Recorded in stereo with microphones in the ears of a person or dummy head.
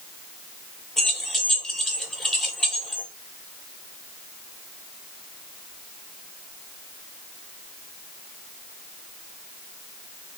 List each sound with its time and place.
1.0 s keys jangling: 5° left (ahead or behind), 0.8 m